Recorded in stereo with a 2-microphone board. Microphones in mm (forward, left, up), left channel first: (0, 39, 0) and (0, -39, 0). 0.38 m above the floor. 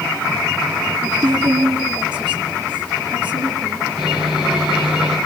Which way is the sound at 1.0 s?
70° right (ahead or behind).